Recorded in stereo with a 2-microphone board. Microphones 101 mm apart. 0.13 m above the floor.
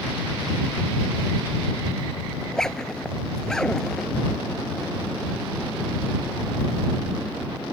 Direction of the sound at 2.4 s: 5° left (ahead or behind).